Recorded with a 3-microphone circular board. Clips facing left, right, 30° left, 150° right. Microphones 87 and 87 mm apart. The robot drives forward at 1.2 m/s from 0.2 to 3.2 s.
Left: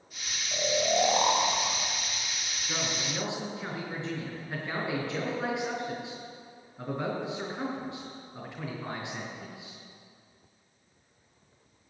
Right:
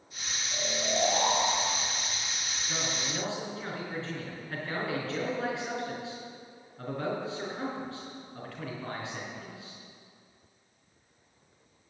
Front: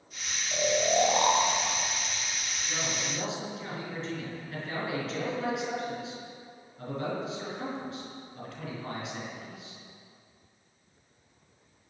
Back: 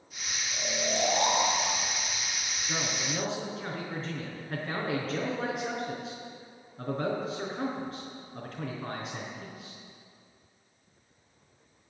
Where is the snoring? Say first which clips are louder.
Left 5 dB, front 7 dB; 35° left, 2 m; by 1.9 s 100° left, 1.6 m.